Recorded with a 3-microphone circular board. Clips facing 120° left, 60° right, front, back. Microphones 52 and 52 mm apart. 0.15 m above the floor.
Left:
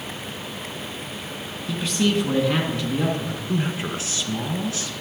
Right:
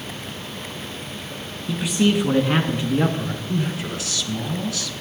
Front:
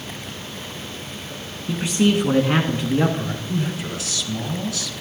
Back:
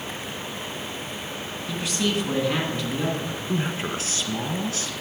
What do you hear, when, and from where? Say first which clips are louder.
1.7 s a man speaking: right 3 dB, front 7 dB; 5° left, 1.6 m; by 3.4 s 20° right, 2 m
3.5 s a man speaking: left 1 dB, back 1 dB; 160° left, 1.6 m